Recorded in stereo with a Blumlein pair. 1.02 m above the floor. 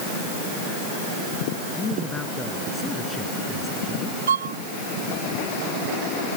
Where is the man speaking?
10° left.